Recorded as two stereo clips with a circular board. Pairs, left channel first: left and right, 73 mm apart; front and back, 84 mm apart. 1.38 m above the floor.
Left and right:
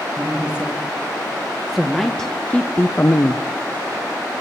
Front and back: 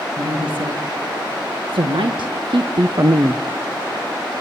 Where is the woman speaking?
165° right, 2.5 m; by 3.4 s 120° left, 0.9 m.